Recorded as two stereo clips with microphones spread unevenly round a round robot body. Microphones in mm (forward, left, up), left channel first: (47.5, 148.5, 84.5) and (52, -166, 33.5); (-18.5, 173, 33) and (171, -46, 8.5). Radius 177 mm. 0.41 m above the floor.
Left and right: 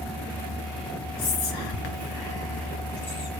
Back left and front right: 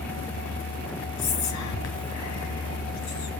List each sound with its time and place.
1.2 s whispering: 105° left, 3 m